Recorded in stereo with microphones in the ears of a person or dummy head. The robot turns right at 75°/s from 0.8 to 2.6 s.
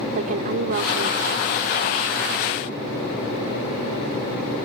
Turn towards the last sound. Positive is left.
turn(degrees=0)